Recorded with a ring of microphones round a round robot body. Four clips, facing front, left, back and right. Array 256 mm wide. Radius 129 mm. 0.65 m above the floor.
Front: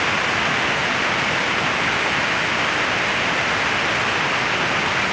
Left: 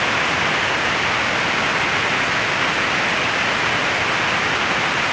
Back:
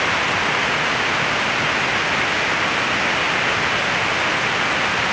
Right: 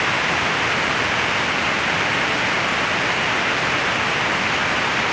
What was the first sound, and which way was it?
Only background noise.